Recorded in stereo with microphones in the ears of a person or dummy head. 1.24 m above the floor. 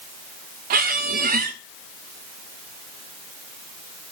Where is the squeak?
50° right (ahead or behind), 0.7 m.